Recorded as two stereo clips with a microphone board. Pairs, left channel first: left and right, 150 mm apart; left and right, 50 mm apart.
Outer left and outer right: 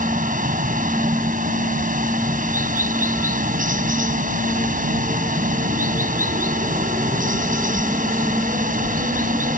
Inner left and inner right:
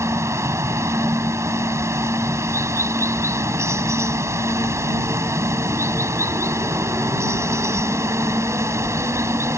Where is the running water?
70° right (ahead or behind).